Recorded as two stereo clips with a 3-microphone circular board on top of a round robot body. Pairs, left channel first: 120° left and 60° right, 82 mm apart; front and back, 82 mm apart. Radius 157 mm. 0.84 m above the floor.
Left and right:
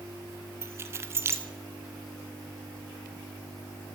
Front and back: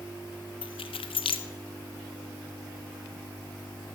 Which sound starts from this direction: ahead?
Keys jangling, at 0.6 s.